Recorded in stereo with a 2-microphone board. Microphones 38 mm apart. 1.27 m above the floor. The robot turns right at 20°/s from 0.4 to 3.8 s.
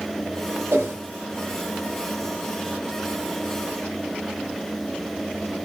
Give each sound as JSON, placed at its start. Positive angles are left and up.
{"t": 0.7, "sound": "a whoosh", "side_deg": -80, "distance_m": 0.7}